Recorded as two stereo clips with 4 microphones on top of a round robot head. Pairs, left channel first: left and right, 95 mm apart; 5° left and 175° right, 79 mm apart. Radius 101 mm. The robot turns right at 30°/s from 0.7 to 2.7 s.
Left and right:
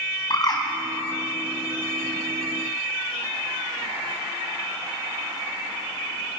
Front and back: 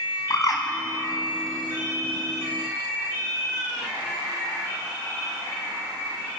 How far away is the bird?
About 4.5 m.